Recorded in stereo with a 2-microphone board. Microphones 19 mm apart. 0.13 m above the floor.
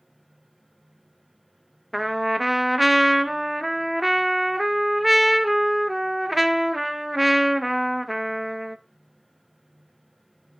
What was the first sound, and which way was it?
A trumpet, 5° right (ahead or behind).